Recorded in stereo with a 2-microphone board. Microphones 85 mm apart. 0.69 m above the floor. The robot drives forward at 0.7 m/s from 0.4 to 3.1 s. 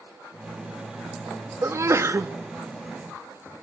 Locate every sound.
1.6 s a sneeze: 30° right (ahead or behind), 0.7 m